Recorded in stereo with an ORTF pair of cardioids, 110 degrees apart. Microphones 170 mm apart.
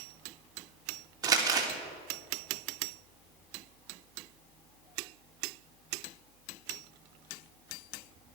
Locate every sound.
1.2 s crumpling: 20° right, 3 m